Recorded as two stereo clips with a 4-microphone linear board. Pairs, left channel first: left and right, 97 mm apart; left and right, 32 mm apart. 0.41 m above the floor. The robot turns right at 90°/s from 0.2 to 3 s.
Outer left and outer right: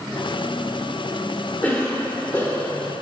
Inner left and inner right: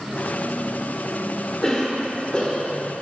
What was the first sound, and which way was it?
A cough, 20° left (ahead or behind).